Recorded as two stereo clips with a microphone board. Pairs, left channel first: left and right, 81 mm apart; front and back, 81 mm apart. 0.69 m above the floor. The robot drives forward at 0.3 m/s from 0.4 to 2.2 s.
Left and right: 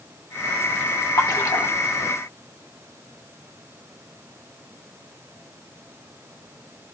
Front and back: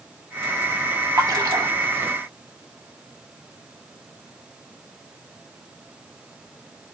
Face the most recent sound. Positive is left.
turn(degrees=145)